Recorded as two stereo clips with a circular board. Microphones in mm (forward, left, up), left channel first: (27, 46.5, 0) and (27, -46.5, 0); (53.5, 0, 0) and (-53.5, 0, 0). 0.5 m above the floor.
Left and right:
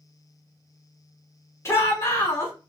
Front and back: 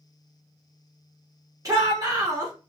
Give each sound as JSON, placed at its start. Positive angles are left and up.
{"t": 1.6, "sound": "a shout", "azimuth_deg": 135, "distance_m": 1.1}